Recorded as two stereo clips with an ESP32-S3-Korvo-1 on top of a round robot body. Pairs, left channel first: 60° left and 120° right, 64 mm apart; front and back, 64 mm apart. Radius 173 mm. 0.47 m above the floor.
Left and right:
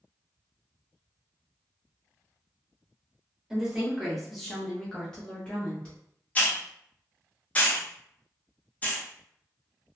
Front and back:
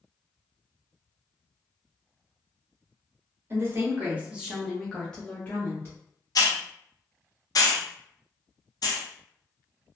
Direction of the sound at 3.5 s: 165° left.